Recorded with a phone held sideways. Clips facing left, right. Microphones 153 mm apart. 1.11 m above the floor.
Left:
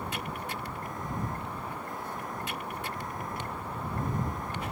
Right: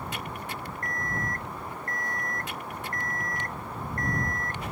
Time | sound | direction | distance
0.8 | an alarm clock | 10° left (ahead or behind) | ?